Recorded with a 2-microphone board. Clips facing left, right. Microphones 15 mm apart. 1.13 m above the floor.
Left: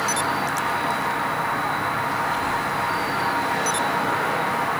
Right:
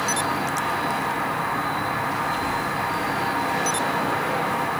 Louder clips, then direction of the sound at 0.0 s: Left 1 dB; 50° left (ahead or behind).